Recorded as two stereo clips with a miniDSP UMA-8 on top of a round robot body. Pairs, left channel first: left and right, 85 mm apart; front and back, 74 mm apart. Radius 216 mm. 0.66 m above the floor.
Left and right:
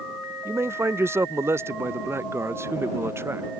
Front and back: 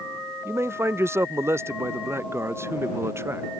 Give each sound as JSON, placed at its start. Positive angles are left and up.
{"t": 0.5, "sound": "a man speaking", "azimuth_deg": -140}